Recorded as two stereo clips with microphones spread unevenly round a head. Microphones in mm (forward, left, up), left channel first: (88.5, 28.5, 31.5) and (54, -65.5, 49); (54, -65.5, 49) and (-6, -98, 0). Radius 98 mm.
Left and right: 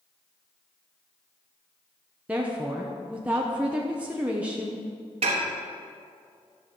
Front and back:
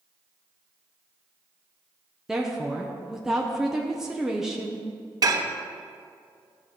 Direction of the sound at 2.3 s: 170° left.